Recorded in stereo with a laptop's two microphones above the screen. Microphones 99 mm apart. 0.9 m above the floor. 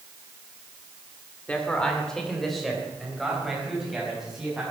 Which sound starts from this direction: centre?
A man speaking, at 1.5 s.